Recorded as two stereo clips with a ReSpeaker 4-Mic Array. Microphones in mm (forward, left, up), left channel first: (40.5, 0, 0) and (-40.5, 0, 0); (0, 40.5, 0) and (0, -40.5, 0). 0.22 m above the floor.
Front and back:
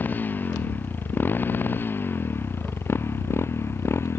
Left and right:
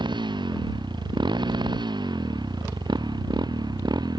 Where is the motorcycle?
70° right; by 4.2 s 60° right.